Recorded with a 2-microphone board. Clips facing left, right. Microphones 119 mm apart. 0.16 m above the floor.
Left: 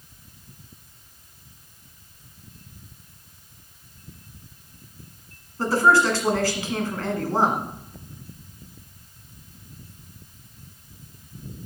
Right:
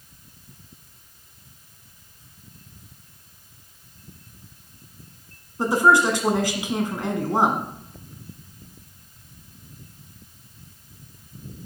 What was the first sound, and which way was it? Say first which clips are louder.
A woman speaking: right 1 dB; 20° right (ahead or behind).